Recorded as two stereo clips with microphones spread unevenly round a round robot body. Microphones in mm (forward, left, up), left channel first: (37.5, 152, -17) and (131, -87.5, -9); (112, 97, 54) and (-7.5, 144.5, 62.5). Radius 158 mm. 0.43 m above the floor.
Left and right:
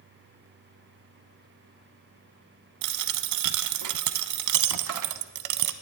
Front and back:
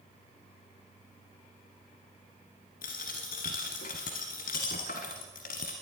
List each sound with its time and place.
2.8 s a dropped coin: 70° right, 0.7 m